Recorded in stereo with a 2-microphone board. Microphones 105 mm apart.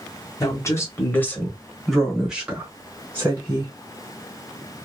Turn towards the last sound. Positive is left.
turn(degrees=-30)  # may be behind; listen again after turning